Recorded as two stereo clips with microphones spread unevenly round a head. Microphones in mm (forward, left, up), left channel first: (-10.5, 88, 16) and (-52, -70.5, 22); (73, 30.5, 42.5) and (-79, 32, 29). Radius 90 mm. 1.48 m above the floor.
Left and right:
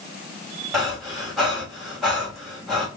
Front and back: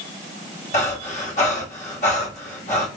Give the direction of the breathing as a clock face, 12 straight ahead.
1 o'clock.